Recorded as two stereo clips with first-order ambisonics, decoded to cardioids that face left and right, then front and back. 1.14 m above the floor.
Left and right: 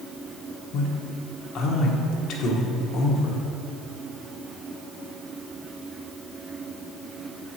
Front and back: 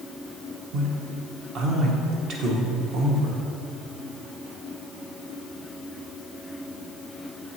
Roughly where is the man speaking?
Behind left.